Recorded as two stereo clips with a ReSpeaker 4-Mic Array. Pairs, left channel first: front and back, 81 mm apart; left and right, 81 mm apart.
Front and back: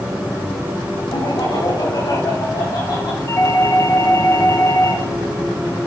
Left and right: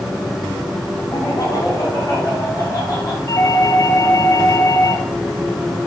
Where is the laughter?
40° left, 8.5 m.